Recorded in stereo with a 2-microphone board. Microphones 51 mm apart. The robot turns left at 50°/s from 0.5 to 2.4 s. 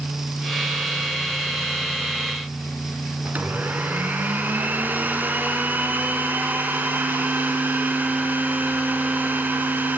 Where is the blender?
40° right (ahead or behind), 3.5 m.